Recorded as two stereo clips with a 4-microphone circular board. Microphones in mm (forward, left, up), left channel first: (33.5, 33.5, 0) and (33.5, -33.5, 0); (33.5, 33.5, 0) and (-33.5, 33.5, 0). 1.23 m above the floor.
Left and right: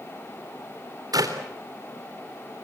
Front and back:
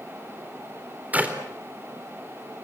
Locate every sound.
1.1 s a clap: 115° right, 3.5 m